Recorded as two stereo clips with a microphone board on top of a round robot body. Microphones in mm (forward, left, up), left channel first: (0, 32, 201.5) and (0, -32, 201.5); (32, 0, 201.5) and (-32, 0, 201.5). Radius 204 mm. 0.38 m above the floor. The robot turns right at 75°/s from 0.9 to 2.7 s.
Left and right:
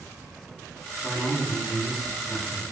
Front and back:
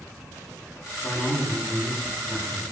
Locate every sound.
1.0 s a man speaking: 10° left, 1.4 m; by 2.6 s 130° left, 1.4 m